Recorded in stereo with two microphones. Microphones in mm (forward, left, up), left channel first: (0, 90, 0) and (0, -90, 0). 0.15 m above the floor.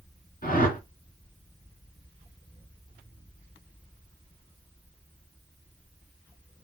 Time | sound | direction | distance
0.4 | a whoosh | 50° left (ahead or behind) | 2.5 m